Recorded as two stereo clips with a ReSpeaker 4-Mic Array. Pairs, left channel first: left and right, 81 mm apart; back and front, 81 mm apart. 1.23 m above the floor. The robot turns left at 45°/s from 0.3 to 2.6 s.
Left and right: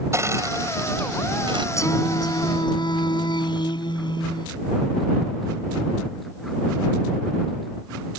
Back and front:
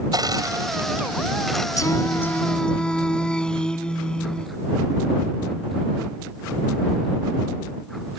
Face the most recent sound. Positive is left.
turn(degrees=100)